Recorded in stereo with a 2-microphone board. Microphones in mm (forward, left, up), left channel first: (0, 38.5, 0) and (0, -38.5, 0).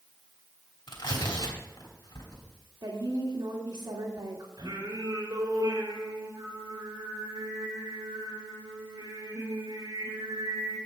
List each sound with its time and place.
0.9 s tearing paper: 75° left (ahead or behind), 3 m
2.8 s a woman speaking: 65° right (ahead or behind), 2.0 m
4.6 s singing: 70° right (ahead or behind), 3.5 m